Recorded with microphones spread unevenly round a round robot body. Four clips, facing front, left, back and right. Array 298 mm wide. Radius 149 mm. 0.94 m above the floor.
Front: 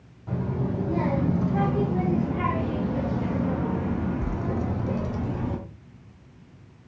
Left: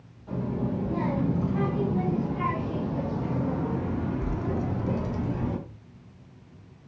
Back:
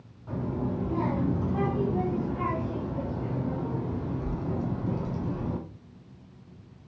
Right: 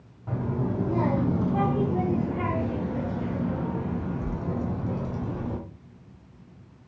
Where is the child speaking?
60° right, 2.0 m; by 5.6 s 45° left, 1.6 m.